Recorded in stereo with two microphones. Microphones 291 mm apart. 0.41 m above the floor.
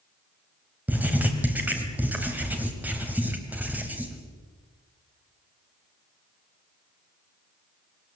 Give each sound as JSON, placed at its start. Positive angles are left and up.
{"t": 0.9, "sound": "writing", "side_deg": -5, "distance_m": 2.5}